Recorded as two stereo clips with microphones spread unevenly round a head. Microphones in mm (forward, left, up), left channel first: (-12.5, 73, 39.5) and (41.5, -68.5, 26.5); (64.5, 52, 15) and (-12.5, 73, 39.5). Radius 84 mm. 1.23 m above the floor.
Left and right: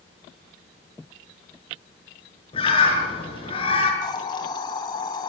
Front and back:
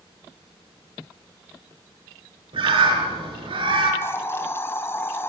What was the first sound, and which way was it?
A bird, 170° left.